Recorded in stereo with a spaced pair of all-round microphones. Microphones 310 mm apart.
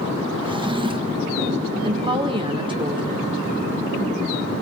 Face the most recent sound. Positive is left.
turn(degrees=-15)  # may be behind; listen again after turning